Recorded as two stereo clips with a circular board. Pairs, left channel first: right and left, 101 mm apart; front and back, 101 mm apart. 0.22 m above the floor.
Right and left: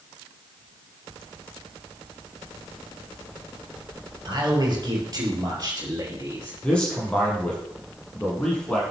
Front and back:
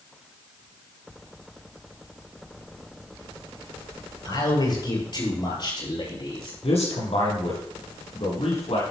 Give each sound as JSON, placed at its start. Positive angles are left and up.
{"t": 4.2, "sound": "a man speaking", "azimuth_deg": 45, "distance_m": 4.5}
{"t": 6.6, "sound": "a man speaking", "azimuth_deg": -10, "distance_m": 6.0}